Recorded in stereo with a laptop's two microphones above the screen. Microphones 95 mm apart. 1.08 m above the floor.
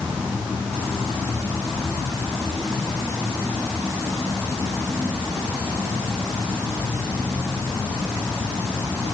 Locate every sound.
Only background noise.